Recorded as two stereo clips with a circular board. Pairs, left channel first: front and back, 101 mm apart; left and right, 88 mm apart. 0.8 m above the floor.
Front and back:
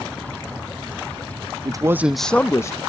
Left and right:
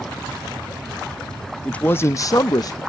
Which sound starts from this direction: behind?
A man speaking, at 1.6 s.